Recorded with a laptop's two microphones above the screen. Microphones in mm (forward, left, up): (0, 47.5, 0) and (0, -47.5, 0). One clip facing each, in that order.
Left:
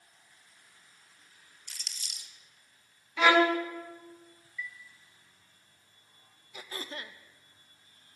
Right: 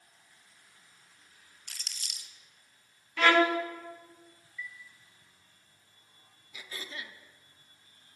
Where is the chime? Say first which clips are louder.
Left 2 dB; 30° right (ahead or behind), 1.5 m.